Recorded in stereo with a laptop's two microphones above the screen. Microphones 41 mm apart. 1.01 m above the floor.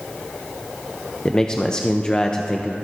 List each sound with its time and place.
1.2 s a man speaking: 20° left (ahead or behind), 0.5 m